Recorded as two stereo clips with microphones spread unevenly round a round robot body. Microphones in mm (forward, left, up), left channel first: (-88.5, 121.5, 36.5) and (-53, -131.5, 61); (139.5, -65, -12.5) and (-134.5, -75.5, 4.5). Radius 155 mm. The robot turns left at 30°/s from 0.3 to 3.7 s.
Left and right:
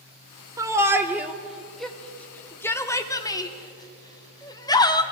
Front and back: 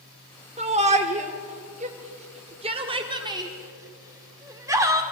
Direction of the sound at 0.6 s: 155° right.